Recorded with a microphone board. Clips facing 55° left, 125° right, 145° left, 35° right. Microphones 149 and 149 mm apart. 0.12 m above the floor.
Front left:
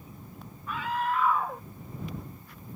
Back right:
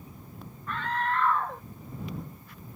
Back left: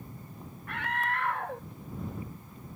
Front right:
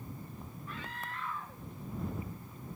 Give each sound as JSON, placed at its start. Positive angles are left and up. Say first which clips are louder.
{"t": 0.7, "sound": "a scream", "louder": "even, back left 12 dB", "azimuth_deg": 140}